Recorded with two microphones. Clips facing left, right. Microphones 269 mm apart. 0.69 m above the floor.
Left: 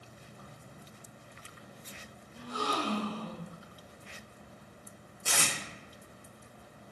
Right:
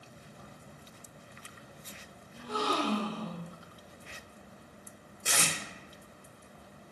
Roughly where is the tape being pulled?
Right.